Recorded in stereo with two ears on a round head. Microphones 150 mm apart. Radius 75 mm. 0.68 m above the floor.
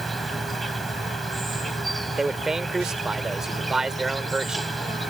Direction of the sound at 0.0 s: Centre (ahead or behind).